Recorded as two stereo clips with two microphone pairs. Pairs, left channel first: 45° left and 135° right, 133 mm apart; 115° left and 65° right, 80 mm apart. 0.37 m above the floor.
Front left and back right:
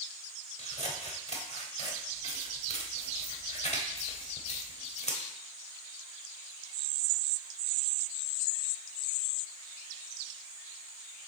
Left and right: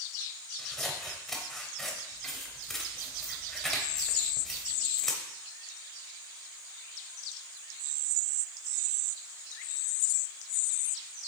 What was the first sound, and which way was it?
Scissors, 30° left.